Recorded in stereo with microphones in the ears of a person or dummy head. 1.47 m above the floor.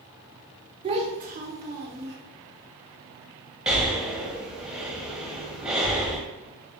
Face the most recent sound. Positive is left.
turn(degrees=-5)  # may be behind; listen again after turning